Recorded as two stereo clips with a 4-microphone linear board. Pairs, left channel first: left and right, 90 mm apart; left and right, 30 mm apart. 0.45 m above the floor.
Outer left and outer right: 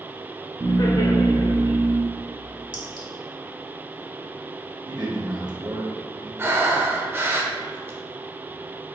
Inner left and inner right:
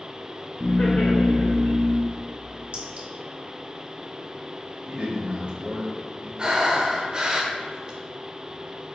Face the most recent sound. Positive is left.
turn(degrees=-25)  # may be behind; listen again after turning